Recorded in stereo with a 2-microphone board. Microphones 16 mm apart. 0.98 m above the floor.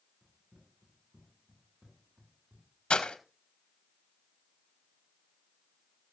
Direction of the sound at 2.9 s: 70° left (ahead or behind).